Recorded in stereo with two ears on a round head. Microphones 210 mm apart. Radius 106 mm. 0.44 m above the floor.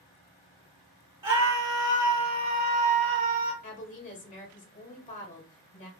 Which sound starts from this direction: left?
A woman speaking, at 3.6 s.